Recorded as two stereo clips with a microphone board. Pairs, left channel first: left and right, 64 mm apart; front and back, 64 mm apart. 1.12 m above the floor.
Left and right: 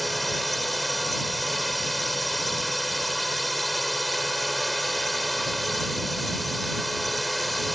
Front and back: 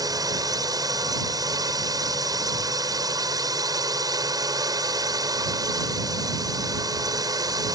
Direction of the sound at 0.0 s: Straight behind.